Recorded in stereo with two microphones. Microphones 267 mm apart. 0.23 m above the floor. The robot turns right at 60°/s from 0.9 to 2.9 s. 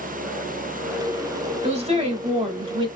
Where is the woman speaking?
20° right (ahead or behind), 1.4 m; by 2.9 s 15° right (ahead or behind), 1.4 m.